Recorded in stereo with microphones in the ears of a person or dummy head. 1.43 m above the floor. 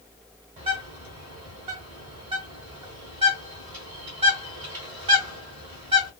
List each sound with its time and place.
0.6 s a bird: 25° right (ahead or behind), 1.3 m